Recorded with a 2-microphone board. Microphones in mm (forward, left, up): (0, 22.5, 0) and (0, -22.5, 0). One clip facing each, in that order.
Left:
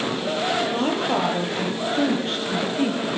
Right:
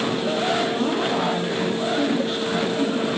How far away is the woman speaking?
About 8 m.